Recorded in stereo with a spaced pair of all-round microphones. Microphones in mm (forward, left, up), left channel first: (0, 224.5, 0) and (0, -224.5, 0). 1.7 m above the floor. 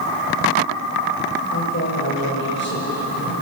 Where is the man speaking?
30° left (ahead or behind), 7.5 m; by 3.3 s 20° left (ahead or behind), 7.5 m.